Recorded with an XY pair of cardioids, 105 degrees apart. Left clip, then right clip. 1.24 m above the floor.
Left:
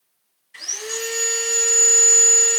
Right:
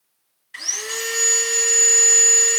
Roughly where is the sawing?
Ahead right.